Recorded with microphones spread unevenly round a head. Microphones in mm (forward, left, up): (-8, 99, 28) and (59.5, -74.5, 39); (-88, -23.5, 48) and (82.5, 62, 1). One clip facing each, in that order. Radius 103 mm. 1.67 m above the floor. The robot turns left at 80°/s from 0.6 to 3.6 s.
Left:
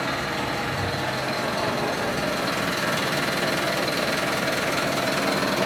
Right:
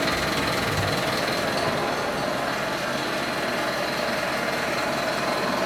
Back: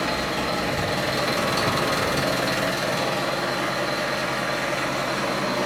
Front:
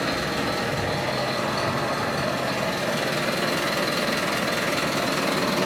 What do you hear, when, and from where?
0.0 s an engine running: 55° right, 0.8 m; by 5.7 s 65° left, 0.8 m